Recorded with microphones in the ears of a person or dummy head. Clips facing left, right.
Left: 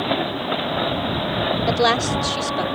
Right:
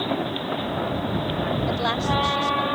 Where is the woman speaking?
75° left (ahead or behind).